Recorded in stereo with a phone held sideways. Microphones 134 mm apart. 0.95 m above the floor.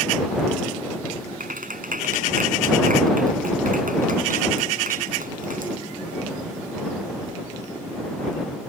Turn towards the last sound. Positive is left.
turn(degrees=-75)  # may be behind; listen again after turning